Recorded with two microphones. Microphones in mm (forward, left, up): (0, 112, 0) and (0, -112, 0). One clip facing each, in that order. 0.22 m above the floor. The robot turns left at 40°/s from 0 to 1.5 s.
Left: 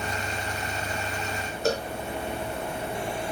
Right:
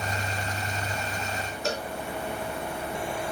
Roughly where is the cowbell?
Left.